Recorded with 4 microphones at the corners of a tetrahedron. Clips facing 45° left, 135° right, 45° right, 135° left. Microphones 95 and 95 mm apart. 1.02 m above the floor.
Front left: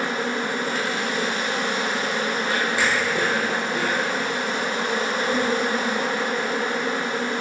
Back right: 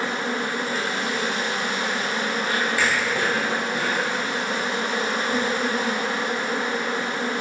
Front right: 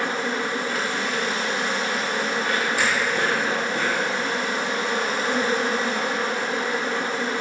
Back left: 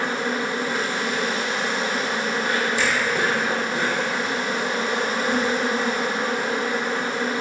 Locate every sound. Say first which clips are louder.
0.0 s an insect: front left 1 dB, back left 1 dB; 65° left, 1.2 m
2.8 s a finger snap: front left 1 dB, even; 20° right, 0.9 m